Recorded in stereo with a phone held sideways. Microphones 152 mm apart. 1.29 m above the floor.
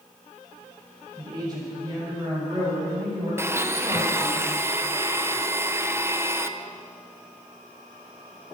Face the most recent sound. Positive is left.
turn(degrees=-15)  # may be behind; listen again after turning